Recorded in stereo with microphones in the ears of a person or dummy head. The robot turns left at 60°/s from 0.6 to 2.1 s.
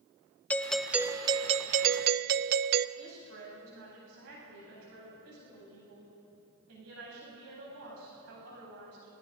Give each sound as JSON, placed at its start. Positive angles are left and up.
{"t": 0.5, "sound": "a doorbell", "azimuth_deg": 15, "distance_m": 0.5}
{"t": 3.0, "sound": "a woman speaking", "side_deg": -80, "distance_m": 9.0}